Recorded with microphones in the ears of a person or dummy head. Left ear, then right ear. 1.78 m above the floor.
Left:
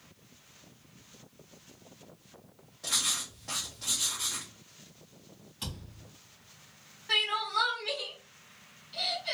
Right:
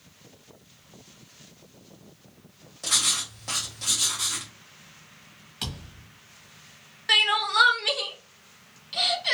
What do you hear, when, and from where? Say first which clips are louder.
2.8 s writing: right 6 dB; 25° right (ahead or behind), 1.1 m
5.6 s a thud: right 7 dB; 35° right (ahead or behind), 1.2 m
7.1 s crying: right 7 dB; 45° right (ahead or behind), 0.6 m